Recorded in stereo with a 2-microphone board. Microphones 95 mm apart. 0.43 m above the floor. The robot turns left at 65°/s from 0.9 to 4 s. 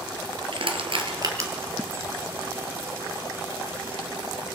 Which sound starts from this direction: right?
Crushing, at 0.5 s.